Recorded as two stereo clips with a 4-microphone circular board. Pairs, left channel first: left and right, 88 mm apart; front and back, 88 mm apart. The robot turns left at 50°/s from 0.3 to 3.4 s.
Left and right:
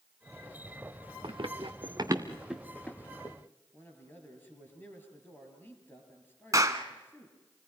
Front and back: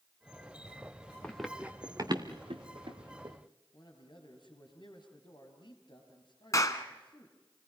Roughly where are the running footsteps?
Right.